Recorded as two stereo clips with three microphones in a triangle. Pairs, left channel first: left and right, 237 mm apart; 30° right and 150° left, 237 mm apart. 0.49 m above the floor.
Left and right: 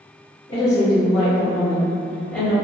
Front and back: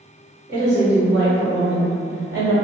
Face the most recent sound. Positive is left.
turn(degrees=180)